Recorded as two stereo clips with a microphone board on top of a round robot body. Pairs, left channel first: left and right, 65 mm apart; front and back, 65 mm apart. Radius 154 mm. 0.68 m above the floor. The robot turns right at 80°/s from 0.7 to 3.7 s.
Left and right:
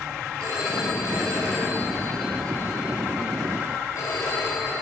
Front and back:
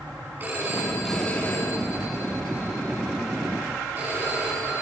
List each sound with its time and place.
0.4 s a phone ringing: 120° right, 5.5 m; by 4.7 s 120° left, 5.5 m